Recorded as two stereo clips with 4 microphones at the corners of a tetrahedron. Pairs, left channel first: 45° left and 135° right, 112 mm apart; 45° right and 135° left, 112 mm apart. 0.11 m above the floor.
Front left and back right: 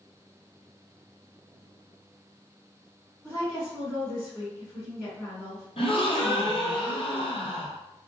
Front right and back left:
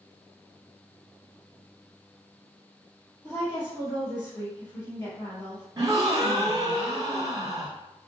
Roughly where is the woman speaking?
Ahead right.